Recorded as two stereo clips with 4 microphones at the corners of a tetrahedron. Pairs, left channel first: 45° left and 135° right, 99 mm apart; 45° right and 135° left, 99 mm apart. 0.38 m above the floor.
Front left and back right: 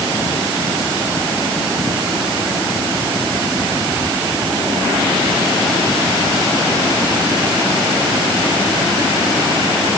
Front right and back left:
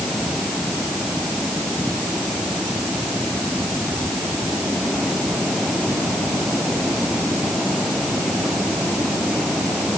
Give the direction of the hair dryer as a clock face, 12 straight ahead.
No hair dryer in this recording.